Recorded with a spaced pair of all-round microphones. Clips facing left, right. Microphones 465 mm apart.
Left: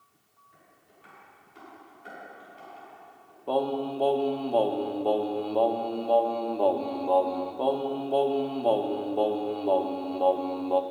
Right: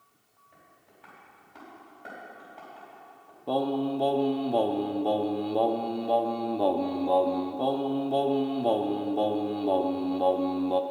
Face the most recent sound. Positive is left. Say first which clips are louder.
# right 1 dB
turn(degrees=-40)  # may be behind; listen again after turning